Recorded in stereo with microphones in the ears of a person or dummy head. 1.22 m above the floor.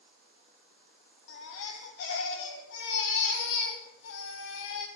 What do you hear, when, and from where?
1.3 s a baby crying: 65° left (ahead or behind), 3 m